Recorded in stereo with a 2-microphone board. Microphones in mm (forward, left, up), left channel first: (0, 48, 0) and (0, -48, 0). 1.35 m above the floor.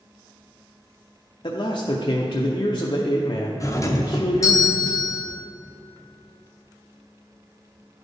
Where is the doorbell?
35° left (ahead or behind), 0.6 m.